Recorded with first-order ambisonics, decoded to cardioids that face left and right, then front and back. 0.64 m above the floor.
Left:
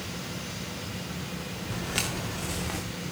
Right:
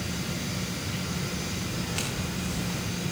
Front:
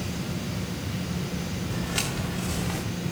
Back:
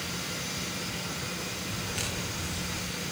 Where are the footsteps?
65° left, 4.5 m; by 2.8 s 55° left, 3.5 m.